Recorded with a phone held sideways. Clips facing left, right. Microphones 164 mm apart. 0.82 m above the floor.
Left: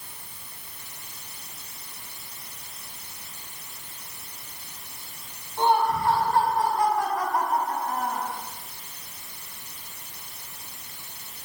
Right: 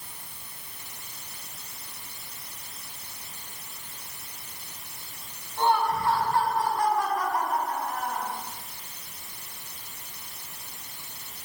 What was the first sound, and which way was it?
Laughter, 20° left (ahead or behind).